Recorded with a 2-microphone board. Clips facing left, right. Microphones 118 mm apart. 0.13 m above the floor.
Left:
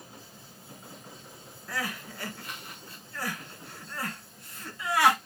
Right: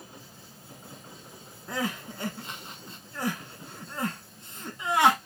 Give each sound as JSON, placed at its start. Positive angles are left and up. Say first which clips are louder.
{"t": 1.7, "sound": "crying", "louder": "right 4 dB", "side_deg": -25, "distance_m": 0.7}